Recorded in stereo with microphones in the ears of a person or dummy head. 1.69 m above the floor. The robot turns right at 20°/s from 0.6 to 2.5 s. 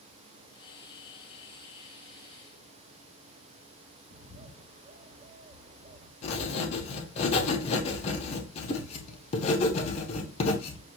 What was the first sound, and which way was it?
A bird, 40° right (ahead or behind).